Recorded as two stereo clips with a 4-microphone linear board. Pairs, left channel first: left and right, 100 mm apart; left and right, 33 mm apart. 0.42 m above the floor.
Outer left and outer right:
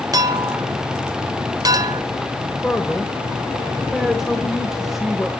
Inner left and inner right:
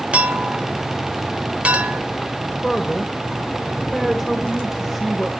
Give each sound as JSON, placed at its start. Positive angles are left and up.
{"t": 0.1, "sound": "a clink", "side_deg": -40, "distance_m": 1.1}
{"t": 2.6, "sound": "a man speaking", "side_deg": -5, "distance_m": 1.4}